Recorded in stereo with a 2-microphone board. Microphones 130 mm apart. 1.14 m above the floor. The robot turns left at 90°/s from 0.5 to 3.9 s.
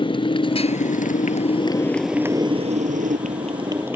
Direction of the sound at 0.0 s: 40° left (ahead or behind).